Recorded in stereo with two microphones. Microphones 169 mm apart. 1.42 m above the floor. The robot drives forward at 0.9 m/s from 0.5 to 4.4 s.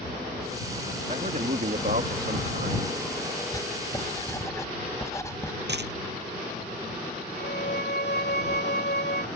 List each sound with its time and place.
1.1 s a man speaking: 45° right (ahead or behind); by 2.9 s 75° right (ahead or behind)
3.5 s writing: 20° left (ahead or behind)
5.7 s a dropped coin: 85° right
7.4 s a violin: 85° left